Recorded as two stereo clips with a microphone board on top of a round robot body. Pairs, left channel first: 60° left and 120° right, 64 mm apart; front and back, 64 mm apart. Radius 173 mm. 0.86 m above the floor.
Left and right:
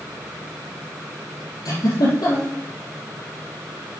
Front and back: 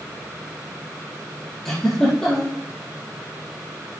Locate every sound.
1.6 s a giggle: 85° left, 6.5 m